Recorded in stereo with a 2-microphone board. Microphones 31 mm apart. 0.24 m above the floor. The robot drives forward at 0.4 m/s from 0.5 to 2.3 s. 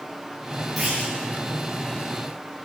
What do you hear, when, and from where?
0.8 s a clunk: 5° right (ahead or behind), 10 m